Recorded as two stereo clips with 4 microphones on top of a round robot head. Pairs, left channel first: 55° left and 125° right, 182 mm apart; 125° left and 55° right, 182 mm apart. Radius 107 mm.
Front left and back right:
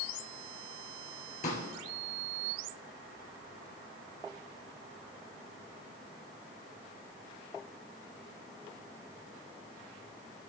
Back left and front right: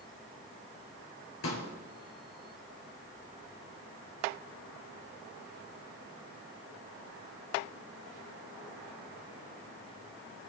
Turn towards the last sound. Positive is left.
turn(degrees=110)